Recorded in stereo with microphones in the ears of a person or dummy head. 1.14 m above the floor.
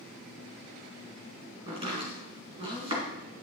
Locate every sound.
1.7 s chopping: 35° right (ahead or behind), 2 m